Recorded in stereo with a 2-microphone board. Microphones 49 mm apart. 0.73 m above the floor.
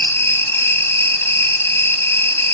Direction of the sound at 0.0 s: 60° left (ahead or behind).